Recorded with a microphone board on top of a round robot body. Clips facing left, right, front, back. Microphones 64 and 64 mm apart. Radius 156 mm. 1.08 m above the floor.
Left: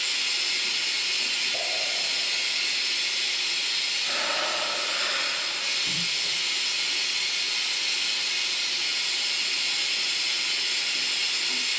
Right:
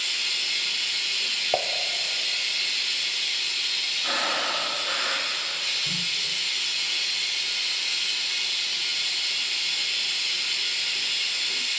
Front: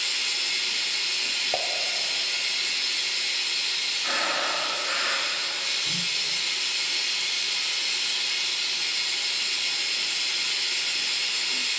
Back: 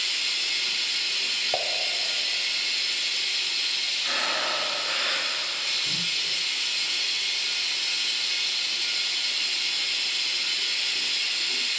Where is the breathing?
70° right, 1.9 m.